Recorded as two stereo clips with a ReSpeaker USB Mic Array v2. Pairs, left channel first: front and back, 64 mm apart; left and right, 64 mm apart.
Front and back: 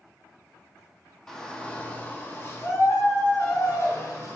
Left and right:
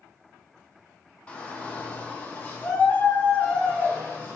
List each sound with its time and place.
1.3 s a shout: 65° left, 0.8 m; by 4.3 s 30° left, 2 m